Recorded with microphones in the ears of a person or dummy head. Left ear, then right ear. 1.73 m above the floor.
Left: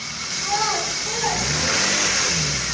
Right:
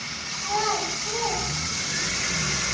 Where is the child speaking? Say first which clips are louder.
Left 3 dB; 10° left (ahead or behind), 7.5 m; by 2.2 s 15° left (ahead or behind), 8 m.